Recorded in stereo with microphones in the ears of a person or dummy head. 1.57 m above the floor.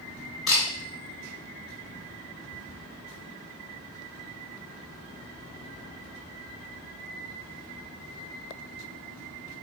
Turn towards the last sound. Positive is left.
turn(degrees=0)  # may be behind; listen again after turning